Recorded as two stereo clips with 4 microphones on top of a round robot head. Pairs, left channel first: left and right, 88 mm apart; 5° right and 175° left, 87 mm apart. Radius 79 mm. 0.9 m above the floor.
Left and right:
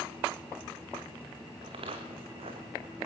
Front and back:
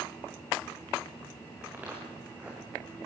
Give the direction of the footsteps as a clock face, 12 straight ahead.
4 o'clock.